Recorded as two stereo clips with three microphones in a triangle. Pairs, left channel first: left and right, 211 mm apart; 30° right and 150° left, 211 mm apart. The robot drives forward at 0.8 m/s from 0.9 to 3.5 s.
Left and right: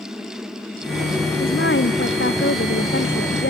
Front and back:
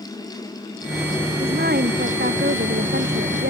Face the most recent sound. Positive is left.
turn(degrees=120)